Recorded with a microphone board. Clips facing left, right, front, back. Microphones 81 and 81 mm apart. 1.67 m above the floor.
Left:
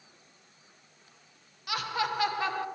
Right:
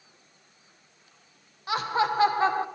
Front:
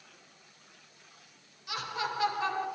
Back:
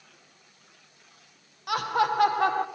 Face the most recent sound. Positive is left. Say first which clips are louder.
# right 6 dB, back 10 dB
turn(degrees=-150)